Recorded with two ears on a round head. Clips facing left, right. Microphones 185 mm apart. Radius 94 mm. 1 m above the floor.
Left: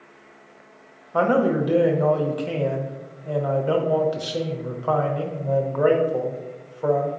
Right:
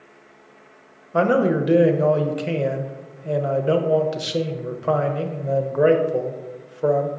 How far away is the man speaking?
About 0.7 m.